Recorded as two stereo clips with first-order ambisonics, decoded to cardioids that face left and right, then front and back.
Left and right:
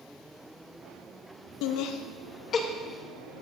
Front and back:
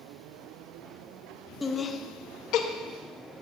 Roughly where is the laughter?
Left.